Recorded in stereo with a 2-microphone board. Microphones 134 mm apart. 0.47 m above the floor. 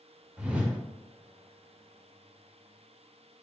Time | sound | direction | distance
0.4 | a whoosh | 10° right (ahead or behind) | 0.7 m